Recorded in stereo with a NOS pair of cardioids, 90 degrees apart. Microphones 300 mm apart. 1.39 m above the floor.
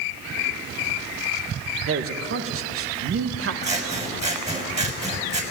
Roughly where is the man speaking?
Ahead right.